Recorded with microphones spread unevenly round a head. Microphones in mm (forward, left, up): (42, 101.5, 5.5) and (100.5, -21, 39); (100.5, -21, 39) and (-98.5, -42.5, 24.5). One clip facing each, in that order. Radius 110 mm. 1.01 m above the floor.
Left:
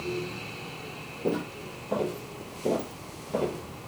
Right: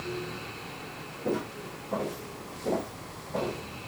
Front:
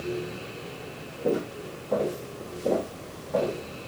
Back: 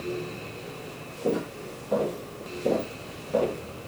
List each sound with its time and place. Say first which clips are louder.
1.2 s footsteps: left 2 dB, front 1 dB; 95° left, 2.5 m; by 3.6 s 125° left, 1.4 m